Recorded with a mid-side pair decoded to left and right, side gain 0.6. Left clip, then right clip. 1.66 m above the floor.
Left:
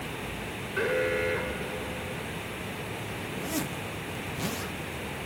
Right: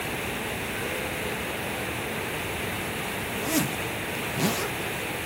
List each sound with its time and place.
0.8 s an alarm: 50° left
3.4 s a zipper: 35° right